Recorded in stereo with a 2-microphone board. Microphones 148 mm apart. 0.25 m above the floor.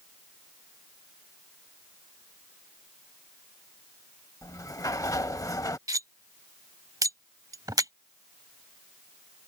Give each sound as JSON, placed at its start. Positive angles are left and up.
{"t": 4.4, "sound": "a sliding door", "side_deg": 25}
{"t": 5.9, "sound": "cutlery clinking", "side_deg": -25}